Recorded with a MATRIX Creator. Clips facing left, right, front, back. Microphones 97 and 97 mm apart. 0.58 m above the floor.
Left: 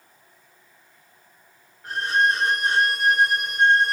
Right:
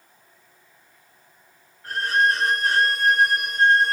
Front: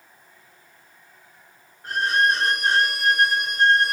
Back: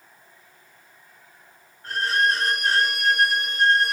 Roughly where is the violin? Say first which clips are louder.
Even, front 2 dB; ahead left.